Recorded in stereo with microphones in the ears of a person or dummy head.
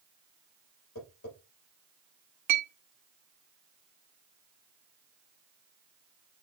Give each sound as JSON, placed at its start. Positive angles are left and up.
{"t": 0.9, "sound": "tapping", "side_deg": 60, "distance_m": 5.5}
{"t": 2.5, "sound": "a clink", "side_deg": -55, "distance_m": 1.5}